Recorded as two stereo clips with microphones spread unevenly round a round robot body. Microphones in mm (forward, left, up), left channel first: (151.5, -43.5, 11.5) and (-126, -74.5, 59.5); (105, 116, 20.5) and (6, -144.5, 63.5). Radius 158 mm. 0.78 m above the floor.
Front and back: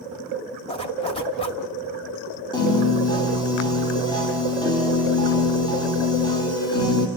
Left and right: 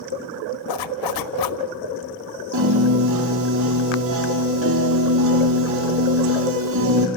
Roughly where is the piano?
Right.